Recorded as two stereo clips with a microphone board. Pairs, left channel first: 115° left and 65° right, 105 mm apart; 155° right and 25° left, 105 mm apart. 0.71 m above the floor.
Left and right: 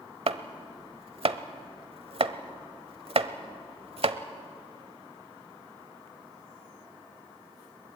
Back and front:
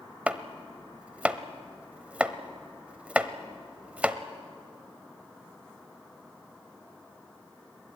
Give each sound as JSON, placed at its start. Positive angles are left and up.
{"t": 0.3, "sound": "chopping", "azimuth_deg": -55, "distance_m": 0.9}